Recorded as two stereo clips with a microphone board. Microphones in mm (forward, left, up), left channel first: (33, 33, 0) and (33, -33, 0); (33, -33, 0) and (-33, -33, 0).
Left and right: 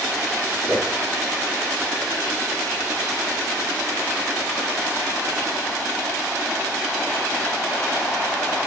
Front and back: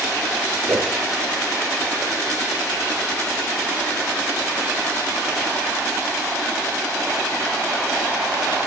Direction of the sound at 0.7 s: 150° right.